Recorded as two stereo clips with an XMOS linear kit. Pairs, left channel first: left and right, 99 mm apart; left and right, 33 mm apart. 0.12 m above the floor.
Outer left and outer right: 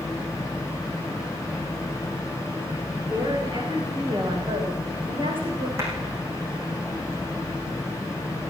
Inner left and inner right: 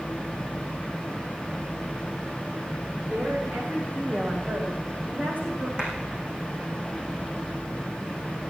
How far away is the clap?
About 6 m.